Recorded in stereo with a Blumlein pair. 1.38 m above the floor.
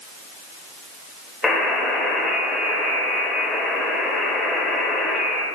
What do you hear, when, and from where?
1.4 s a buzzer: 15° left, 0.8 m